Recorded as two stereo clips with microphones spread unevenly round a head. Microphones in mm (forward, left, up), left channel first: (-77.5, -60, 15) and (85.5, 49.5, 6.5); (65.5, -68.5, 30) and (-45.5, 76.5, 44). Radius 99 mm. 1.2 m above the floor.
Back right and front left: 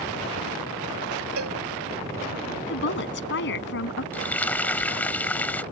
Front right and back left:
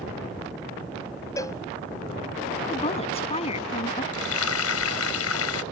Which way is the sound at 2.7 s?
115° right.